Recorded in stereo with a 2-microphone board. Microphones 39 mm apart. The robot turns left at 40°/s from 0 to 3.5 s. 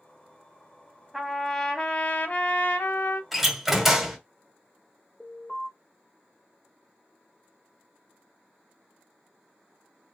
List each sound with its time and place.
1.1 s a trumpet: 170° right, 0.7 m; by 3.2 s 105° left, 0.7 m
3.3 s a door slam: centre (ahead or behind), 1.1 m; by 4.2 s 5° right (ahead or behind), 1.1 m
5.2 s an alarm: 30° left (ahead or behind), 1.9 m